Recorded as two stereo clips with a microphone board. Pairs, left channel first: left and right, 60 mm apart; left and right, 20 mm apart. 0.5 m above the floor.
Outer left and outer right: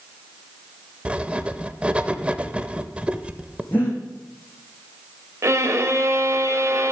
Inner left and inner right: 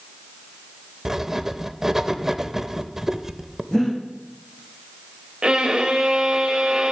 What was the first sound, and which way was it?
Writing, 20° right (ahead or behind).